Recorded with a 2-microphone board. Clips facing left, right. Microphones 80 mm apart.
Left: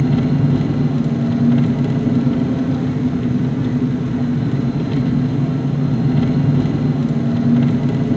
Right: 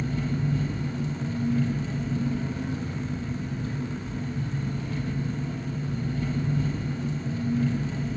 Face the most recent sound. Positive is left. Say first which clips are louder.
# left 13 dB
turn(degrees=70)  # may be behind; listen again after turning